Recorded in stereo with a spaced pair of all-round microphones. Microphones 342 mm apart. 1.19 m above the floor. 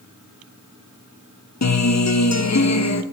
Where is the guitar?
50° left (ahead or behind), 0.6 m.